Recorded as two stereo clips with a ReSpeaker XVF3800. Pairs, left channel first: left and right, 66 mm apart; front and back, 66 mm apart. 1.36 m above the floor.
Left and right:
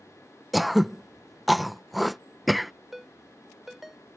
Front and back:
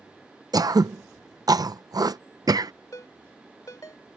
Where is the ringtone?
5° right.